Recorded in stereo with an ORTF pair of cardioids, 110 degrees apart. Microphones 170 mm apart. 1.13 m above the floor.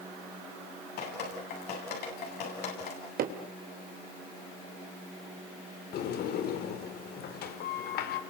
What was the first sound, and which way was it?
Dripping, 70° left.